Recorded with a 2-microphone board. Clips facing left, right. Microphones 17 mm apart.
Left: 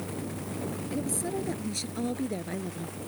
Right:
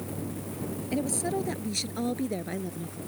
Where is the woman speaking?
30° right (ahead or behind); by 3.0 s 5° right (ahead or behind).